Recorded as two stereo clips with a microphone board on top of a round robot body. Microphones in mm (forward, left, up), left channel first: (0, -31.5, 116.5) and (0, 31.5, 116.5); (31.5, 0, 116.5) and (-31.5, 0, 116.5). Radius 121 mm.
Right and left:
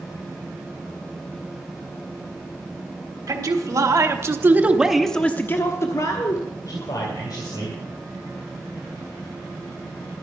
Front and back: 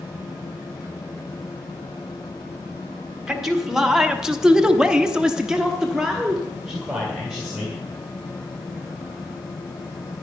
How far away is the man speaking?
About 2.5 m.